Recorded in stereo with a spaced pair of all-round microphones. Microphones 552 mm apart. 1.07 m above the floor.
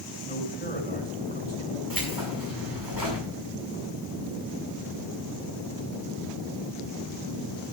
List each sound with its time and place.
0.2 s a man speaking: 20° left (ahead or behind), 6 m
1.9 s keys jangling: 40° right (ahead or behind), 6.5 m